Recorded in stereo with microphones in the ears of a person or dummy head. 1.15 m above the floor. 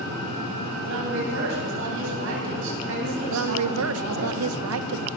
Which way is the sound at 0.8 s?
65° right (ahead or behind).